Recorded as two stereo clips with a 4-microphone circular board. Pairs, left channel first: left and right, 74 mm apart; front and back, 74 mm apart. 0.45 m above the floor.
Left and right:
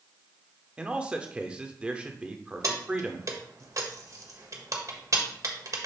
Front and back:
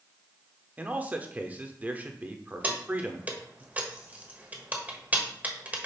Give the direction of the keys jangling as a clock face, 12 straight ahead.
4 o'clock.